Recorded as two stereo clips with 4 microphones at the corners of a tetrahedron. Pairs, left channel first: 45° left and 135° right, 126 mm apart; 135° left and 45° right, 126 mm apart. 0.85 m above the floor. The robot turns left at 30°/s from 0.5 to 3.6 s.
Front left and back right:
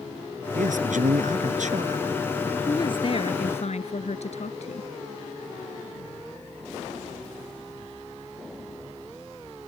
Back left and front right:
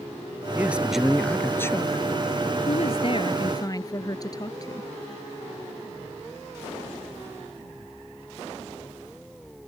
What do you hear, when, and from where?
0.6 s a man speaking: 120° right; by 2.0 s 165° right
2.7 s a woman speaking: 105° left; by 4.9 s 75° left